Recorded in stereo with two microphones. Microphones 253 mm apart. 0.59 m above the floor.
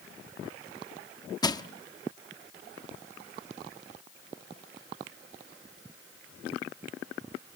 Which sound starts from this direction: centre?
Crushing, at 1.4 s.